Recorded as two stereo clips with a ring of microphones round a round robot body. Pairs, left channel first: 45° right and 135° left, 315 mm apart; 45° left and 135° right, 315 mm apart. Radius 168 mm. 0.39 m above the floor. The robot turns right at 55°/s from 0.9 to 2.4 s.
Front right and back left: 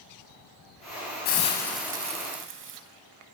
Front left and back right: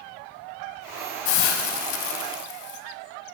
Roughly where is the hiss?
Ahead.